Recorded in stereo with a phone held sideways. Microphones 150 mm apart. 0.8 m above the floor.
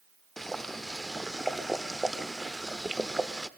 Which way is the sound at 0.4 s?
Centre (ahead or behind).